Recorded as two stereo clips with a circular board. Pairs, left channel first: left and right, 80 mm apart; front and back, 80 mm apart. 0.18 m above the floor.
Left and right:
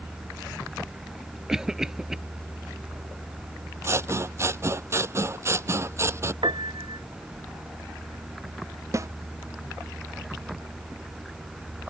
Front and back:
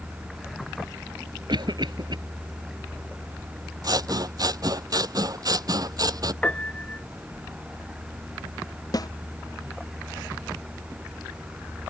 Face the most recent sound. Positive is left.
turn(degrees=-40)